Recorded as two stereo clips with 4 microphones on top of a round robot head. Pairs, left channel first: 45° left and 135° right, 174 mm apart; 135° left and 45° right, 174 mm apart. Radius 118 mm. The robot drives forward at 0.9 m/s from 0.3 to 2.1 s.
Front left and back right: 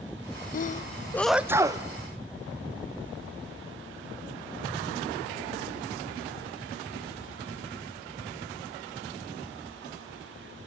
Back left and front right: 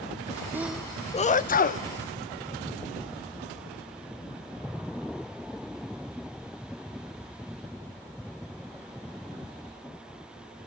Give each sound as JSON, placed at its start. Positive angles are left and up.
{"t": 0.5, "sound": "a sneeze", "azimuth_deg": 30, "distance_m": 0.6}